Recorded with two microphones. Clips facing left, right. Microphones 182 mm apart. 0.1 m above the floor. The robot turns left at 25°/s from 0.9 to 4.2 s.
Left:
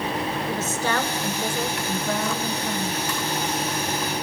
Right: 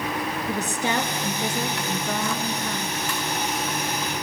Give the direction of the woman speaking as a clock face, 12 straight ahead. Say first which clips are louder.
Right 1 dB; 5 o'clock.